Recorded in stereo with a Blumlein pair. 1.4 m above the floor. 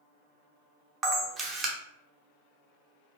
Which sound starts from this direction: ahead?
A camera shutter, at 1.0 s.